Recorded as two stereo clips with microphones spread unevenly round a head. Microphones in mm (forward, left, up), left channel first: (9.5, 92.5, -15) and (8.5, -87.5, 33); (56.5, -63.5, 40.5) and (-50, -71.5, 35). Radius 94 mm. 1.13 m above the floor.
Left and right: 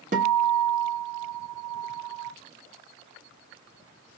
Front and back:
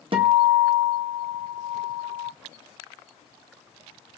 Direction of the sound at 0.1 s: 145° right.